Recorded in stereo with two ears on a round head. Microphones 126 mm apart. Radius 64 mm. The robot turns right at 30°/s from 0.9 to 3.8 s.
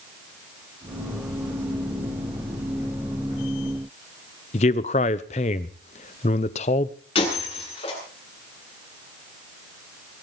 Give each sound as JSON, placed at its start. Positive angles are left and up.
{"t": 4.5, "sound": "a man speaking", "side_deg": 45, "distance_m": 0.8}
{"t": 7.2, "sound": "breaking glass", "side_deg": 40, "distance_m": 8.0}